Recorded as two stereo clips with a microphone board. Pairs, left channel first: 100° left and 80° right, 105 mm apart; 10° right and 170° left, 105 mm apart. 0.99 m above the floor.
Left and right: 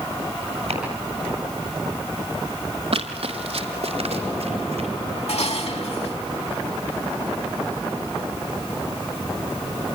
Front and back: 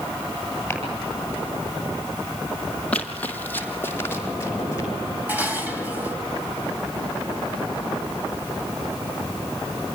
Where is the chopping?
85° right, 9 m.